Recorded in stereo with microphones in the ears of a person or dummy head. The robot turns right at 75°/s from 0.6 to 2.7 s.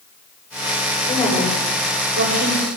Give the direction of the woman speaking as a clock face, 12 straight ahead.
7 o'clock.